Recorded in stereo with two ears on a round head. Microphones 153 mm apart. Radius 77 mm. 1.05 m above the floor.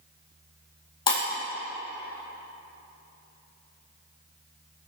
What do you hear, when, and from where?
1.1 s breaking glass: 30° left (ahead or behind), 3 m